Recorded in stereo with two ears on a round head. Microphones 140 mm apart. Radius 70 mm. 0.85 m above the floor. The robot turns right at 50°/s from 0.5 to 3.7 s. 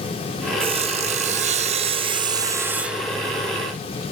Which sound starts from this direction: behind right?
Sawing, at 0.6 s.